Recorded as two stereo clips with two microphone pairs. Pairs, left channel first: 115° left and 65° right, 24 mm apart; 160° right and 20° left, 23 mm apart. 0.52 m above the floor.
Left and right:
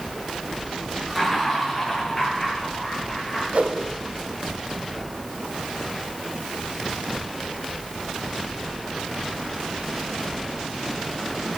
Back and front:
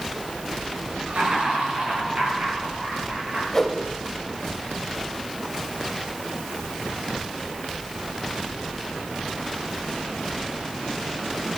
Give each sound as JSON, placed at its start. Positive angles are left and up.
{"t": 1.1, "sound": "laughter", "azimuth_deg": 30, "distance_m": 7.5}
{"t": 3.5, "sound": "a whoosh", "azimuth_deg": -90, "distance_m": 1.8}